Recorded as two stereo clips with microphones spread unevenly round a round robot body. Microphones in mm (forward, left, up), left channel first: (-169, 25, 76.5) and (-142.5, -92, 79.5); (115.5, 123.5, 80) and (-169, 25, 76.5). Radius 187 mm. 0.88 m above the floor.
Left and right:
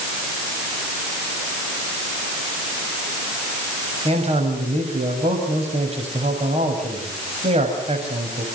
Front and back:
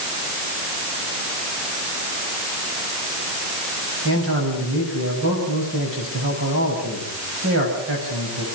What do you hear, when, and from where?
4.0 s a man speaking: 105° right, 6.5 m